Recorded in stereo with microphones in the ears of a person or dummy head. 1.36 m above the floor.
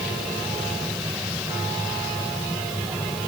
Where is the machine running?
Centre (ahead or behind).